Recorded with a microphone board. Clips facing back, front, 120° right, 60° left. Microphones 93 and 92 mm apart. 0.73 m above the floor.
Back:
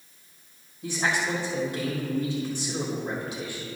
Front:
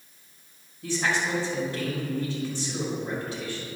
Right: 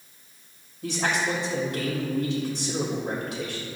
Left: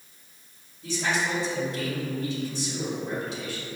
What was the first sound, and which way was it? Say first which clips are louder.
A man speaking: even, right 1 dB; 105° right.